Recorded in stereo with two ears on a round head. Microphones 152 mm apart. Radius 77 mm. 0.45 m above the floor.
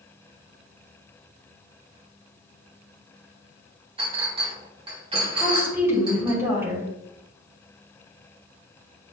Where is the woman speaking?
15° right (ahead or behind), 3.5 m.